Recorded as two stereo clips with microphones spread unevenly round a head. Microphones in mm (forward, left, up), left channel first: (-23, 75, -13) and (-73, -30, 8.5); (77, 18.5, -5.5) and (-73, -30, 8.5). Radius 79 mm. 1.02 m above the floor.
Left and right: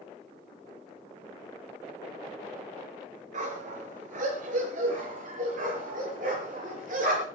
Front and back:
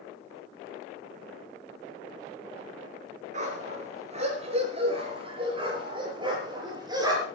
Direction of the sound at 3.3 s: 120° right.